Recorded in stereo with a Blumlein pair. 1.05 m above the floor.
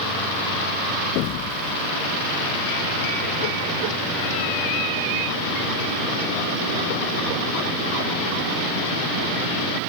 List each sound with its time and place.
1.1 s an explosion: 40° left